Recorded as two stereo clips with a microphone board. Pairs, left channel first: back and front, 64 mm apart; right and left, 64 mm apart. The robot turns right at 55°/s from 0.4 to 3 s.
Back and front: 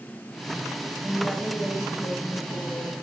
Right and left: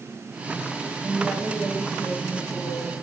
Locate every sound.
1.0 s a woman speaking: 110° left, 2 m; by 2.9 s 145° right, 2 m